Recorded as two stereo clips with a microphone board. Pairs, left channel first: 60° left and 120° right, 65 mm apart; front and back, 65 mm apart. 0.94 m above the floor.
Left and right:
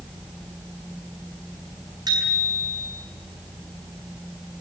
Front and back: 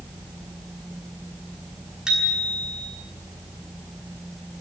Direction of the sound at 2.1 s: 100° right.